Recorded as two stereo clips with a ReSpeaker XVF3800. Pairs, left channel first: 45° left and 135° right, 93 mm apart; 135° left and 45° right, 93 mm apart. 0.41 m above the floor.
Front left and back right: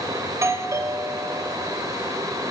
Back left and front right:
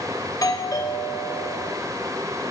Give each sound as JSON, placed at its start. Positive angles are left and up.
{"t": 0.3, "sound": "a doorbell", "azimuth_deg": 175, "distance_m": 2.5}